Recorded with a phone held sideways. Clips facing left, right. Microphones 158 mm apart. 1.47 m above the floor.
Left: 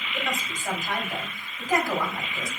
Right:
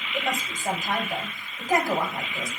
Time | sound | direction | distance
0.1 | a woman speaking | 25° right (ahead or behind) | 3.5 m